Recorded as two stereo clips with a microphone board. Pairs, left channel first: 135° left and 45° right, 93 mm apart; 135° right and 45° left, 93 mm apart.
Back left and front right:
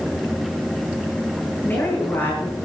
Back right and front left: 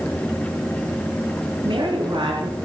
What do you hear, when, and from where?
1.6 s a woman speaking: 65° left, 9 m